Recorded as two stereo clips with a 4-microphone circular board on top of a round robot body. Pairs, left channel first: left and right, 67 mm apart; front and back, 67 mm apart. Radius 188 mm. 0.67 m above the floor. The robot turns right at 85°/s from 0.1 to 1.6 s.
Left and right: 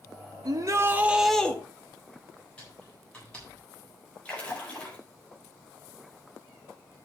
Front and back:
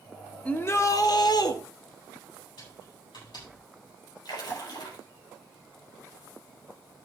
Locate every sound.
0.5 s a shout: 70° right, 2.0 m; by 1.6 s 20° left, 2.0 m
2.6 s typing on a keyboard: 15° left, 8.5 m
4.2 s a splash: 20° left, 5 m